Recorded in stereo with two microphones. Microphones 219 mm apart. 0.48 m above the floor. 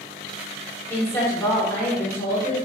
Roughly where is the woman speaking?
Centre.